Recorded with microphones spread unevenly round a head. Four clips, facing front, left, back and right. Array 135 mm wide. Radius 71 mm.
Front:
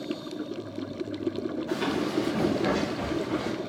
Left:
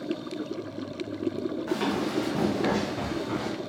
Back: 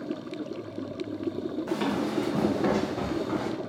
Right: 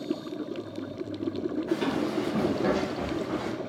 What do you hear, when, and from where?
1.7 s running footsteps: 160° left, 2.5 m; by 3.5 s 170° right, 2.5 m